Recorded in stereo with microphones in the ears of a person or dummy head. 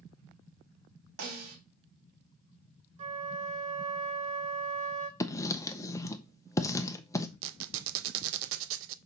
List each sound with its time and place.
1.2 s a snare drum: 70° right (ahead or behind), 3 m
3.0 s a flute: 40° right (ahead or behind), 1.1 m
5.2 s writing: 15° left (ahead or behind), 0.6 m
7.4 s a squeak: 75° right (ahead or behind), 0.5 m